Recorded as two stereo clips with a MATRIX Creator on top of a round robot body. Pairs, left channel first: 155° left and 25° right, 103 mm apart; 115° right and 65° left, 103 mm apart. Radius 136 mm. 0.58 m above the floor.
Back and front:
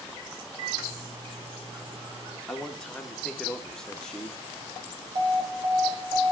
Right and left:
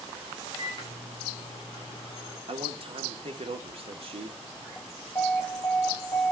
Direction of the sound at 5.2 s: 40° right.